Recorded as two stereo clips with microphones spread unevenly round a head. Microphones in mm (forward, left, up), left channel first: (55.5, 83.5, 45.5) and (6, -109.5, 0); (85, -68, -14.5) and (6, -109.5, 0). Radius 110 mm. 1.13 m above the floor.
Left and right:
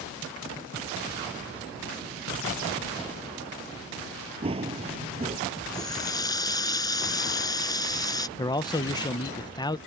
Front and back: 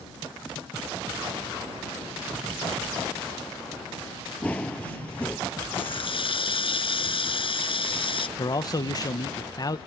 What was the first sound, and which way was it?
Running footsteps, 50° right.